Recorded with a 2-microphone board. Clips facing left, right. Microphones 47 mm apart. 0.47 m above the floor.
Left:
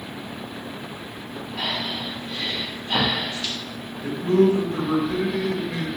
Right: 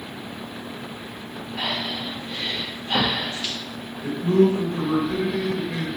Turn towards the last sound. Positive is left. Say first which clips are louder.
# even
turn(degrees=0)  # may be behind; listen again after turning